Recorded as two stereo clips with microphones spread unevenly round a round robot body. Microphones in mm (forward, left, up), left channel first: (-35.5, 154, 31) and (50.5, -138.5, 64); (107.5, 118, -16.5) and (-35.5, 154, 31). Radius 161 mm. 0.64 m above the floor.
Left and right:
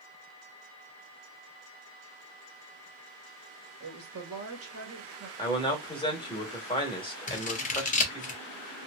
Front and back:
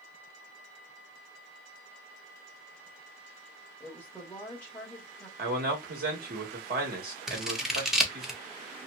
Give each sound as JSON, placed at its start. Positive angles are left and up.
{"t": 3.8, "sound": "a woman speaking", "azimuth_deg": -65, "distance_m": 1.2}
{"t": 5.4, "sound": "a man speaking", "azimuth_deg": 170, "distance_m": 1.2}
{"t": 7.3, "sound": "scissors", "azimuth_deg": 60, "distance_m": 0.9}